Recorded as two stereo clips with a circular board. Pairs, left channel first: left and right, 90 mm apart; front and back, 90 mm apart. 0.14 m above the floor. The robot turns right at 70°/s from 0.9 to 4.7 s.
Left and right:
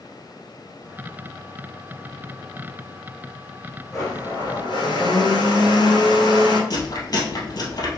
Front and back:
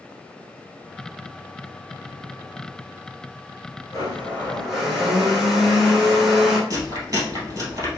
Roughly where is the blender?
Ahead left.